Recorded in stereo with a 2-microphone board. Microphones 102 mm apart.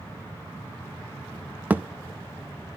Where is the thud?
15° right (ahead or behind), 0.6 m.